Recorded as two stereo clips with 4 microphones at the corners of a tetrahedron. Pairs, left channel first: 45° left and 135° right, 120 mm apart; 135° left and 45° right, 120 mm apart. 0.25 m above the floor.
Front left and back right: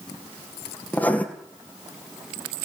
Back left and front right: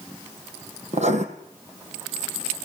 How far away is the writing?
About 2.5 m.